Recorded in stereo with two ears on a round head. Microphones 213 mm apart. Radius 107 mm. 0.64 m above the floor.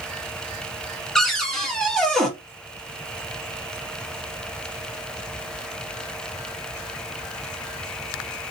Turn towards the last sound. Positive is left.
turn(degrees=0)  # may be behind; listen again after turning